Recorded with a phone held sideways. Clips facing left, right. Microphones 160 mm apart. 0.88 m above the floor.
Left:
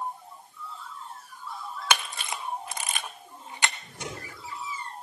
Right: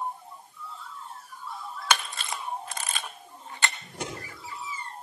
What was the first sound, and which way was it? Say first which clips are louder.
A camera shutter: even; 15° left (ahead or behind).